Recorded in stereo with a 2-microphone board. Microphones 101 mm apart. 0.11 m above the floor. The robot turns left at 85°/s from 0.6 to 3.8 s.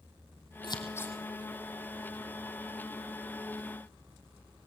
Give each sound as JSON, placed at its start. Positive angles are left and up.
{"t": 0.6, "sound": "scissors", "side_deg": 50, "distance_m": 3.5}